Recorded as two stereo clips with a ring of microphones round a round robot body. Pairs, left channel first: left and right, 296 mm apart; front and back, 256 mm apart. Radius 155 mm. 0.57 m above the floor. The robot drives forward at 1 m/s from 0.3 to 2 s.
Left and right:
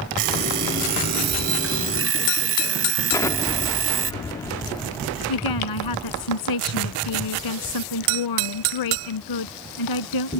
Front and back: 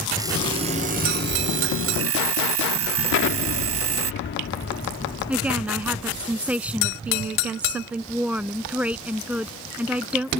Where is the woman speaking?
95° left.